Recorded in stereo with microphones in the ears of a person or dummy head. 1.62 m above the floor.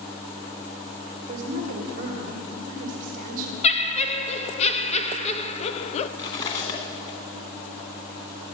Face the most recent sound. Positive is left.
turn(degrees=35)  # may be behind; listen again after turning